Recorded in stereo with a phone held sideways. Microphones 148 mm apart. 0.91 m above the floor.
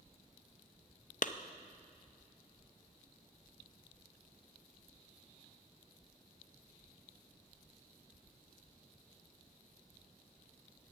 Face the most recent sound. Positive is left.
turn(degrees=60)  # may be behind; listen again after turning